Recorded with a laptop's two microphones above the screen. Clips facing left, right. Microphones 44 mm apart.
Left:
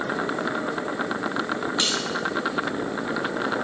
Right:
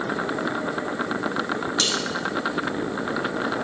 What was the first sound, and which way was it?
Cutlery clinking, 20° left (ahead or behind).